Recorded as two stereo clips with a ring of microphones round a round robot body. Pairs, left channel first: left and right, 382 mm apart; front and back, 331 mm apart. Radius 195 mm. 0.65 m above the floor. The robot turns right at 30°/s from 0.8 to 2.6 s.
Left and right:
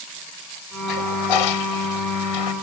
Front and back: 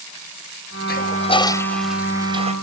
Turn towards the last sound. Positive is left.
turn(degrees=110)